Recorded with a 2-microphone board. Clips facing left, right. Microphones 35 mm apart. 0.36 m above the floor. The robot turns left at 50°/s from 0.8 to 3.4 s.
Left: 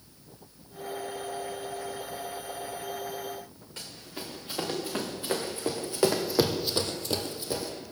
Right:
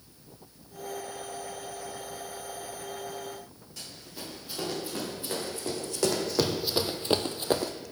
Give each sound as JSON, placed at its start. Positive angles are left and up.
{"t": 3.8, "sound": "running footsteps", "side_deg": 40, "distance_m": 2.5}